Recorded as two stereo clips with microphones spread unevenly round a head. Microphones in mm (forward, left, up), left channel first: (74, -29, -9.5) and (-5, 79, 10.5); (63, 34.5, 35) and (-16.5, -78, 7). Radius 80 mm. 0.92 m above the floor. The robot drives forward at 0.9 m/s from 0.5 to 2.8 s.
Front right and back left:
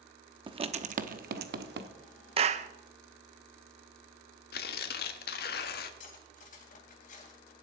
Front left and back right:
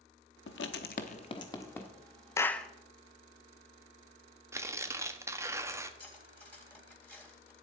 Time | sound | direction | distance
0.5 | writing | 70° left | 1.0 m
2.4 | a clap | 130° left | 0.6 m
4.5 | tearing paper | 55° right | 1.1 m
6.0 | cutlery clinking | 25° right | 3.5 m